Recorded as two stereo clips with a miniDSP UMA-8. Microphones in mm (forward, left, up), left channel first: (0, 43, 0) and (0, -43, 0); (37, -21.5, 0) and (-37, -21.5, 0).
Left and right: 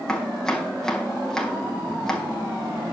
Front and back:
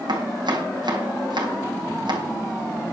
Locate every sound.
0.1 s chopping: 175° left, 3.5 m